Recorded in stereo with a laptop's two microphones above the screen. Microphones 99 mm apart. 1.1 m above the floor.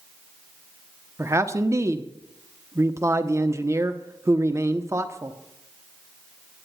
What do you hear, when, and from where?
1.2 s a man speaking: 30° right (ahead or behind), 0.8 m